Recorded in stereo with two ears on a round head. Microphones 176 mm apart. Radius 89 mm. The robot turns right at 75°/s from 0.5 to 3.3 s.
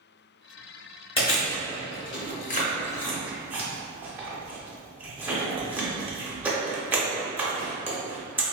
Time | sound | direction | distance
1.2 | chewing | 30° left (ahead or behind) | 0.7 m